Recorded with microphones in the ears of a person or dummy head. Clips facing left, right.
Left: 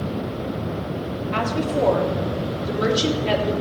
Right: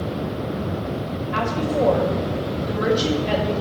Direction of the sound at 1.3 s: 45° left (ahead or behind).